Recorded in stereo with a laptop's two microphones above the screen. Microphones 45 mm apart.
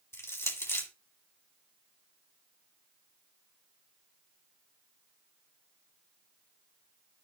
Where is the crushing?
65° left (ahead or behind), 1.7 m.